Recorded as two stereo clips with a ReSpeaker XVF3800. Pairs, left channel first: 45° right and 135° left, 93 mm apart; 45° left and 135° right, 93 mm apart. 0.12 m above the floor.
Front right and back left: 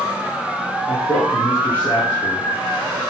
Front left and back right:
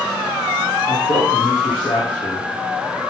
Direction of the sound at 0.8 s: 20° left.